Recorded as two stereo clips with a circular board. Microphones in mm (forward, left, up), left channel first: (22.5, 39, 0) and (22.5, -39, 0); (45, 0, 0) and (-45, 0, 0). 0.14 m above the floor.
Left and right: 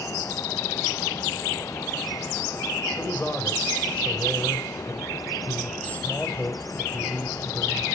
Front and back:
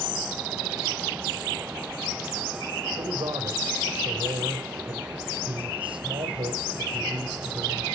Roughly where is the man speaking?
Behind.